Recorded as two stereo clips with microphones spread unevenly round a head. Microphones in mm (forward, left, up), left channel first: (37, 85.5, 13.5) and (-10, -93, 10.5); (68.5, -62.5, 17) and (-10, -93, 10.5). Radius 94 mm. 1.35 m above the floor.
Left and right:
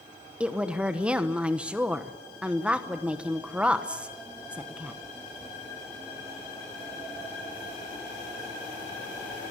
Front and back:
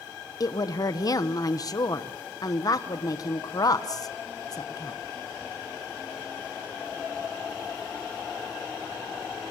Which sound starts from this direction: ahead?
A woman speaking, at 0.4 s.